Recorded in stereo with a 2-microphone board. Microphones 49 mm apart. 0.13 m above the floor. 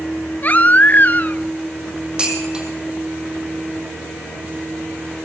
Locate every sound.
0.4 s a baby crying: 40° left (ahead or behind), 0.7 m
2.2 s dishes clattering: 20° right (ahead or behind), 4 m